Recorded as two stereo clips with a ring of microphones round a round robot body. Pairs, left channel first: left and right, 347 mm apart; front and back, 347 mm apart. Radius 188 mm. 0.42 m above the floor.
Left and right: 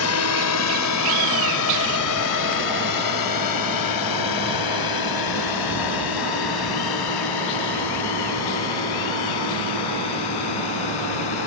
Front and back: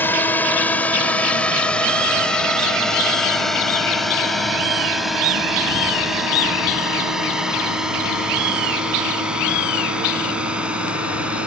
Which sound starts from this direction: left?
A drone, at 0.0 s.